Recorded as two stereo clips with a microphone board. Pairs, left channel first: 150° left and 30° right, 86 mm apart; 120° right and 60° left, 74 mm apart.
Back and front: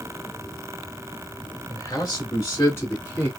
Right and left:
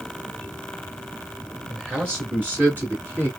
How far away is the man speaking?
About 2 m.